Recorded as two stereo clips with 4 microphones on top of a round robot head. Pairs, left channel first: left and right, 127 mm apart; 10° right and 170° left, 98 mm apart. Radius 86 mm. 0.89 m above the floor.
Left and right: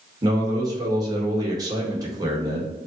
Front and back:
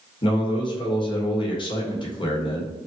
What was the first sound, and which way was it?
A man speaking, 35° right.